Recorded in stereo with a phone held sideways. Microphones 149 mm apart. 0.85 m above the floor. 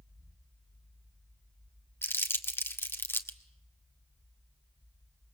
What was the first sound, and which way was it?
Crumpling, 15° left (ahead or behind).